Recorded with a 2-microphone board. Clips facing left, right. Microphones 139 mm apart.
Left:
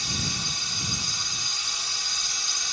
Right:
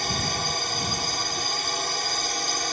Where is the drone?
60° right (ahead or behind); by 2.7 s 55° right (ahead or behind).